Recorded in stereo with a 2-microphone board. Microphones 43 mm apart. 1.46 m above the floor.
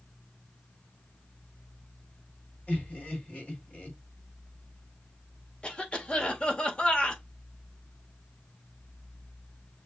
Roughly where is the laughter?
Left.